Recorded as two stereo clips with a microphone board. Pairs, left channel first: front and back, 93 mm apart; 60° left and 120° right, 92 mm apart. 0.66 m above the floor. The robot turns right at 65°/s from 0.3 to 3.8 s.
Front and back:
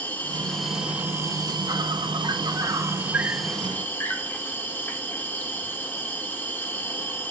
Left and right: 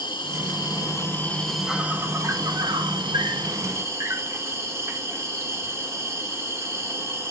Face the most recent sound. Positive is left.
turn(degrees=-65)